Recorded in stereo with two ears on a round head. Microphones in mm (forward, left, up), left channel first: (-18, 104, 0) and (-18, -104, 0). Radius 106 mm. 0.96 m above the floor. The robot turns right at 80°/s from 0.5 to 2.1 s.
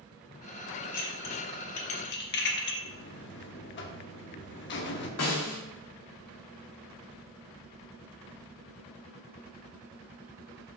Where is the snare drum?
90° left, 1.6 m.